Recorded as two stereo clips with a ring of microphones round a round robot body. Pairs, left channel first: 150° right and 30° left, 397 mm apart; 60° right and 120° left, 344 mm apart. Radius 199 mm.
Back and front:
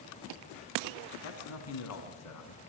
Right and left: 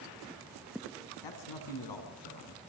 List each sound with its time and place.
1.2 s a man speaking: 95° right, 5 m; by 2.6 s 105° right, 5.5 m